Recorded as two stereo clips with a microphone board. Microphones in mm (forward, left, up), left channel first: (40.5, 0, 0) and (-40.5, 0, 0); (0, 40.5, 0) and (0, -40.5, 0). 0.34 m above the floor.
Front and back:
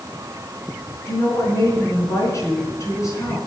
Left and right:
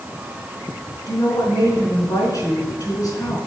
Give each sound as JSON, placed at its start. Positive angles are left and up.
{"t": 1.1, "sound": "a woman speaking", "azimuth_deg": 50, "distance_m": 3.5}